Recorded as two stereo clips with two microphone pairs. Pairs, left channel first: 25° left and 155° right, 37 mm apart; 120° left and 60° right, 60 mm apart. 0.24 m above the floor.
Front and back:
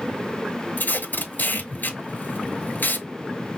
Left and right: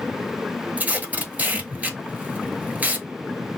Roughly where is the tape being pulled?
Ahead.